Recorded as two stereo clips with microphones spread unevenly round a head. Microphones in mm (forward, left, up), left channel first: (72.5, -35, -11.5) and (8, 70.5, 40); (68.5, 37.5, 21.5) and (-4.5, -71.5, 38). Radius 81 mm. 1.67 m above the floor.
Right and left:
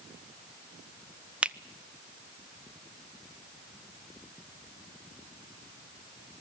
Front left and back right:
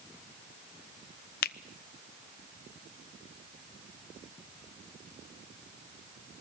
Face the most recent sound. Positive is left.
turn(degrees=50)